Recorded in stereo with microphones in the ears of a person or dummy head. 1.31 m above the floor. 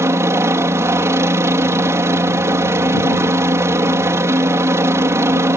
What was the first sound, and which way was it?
A helicopter, 10° right (ahead or behind).